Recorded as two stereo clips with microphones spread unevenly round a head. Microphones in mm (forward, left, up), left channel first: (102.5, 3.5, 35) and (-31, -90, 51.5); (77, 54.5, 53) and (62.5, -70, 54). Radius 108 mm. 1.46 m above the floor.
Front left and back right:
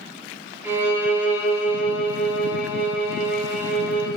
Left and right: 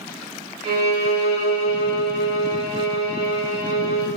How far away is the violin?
About 1.4 m.